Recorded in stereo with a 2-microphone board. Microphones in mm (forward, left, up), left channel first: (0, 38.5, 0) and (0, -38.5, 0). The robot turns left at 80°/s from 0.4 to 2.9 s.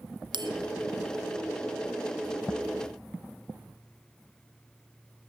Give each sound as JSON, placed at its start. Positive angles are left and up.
{"t": 0.3, "sound": "a bell", "side_deg": -85, "distance_m": 1.5}